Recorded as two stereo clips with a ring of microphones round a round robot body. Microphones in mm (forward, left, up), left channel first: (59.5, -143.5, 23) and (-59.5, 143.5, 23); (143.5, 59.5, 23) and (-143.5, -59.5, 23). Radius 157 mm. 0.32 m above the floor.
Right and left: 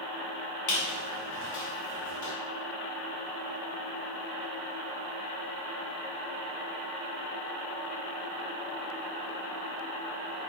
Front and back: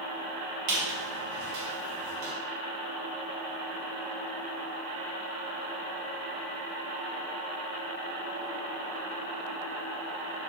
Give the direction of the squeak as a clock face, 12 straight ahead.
4 o'clock.